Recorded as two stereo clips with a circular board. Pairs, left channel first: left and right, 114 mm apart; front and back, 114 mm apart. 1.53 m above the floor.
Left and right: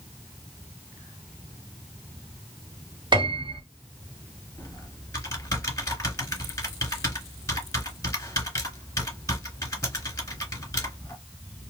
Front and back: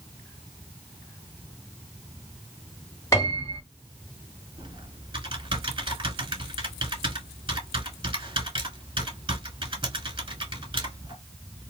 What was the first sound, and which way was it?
A piano, 55° right.